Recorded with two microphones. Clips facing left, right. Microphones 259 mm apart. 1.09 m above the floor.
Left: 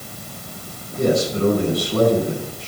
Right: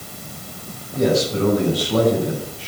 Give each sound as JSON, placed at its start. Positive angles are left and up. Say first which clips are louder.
{"t": 0.9, "sound": "a man speaking", "louder": "right 1 dB", "side_deg": -85, "distance_m": 7.0}